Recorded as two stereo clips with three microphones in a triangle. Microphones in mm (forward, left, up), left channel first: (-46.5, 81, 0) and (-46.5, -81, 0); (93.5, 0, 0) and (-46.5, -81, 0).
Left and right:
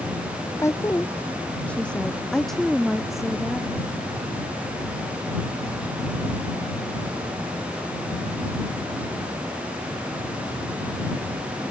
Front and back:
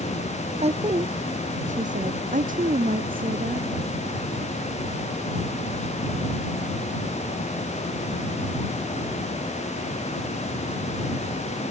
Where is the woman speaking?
160° left; by 3.7 s 175° right.